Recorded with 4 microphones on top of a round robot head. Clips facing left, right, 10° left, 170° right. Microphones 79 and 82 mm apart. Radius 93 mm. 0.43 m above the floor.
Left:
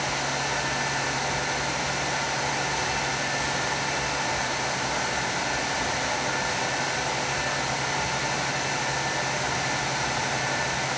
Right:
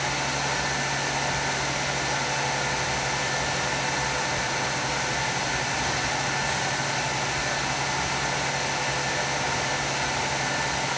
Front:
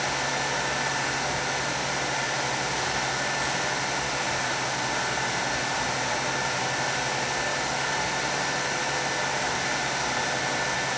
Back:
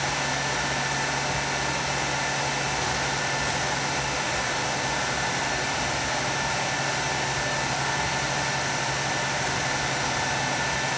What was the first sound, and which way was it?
Only background noise.